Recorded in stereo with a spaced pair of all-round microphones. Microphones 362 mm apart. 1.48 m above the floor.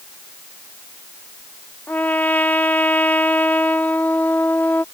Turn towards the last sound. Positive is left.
turn(degrees=5)  # may be behind; listen again after turning